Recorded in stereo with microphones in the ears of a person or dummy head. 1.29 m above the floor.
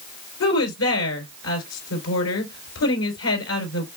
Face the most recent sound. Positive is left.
turn(degrees=90)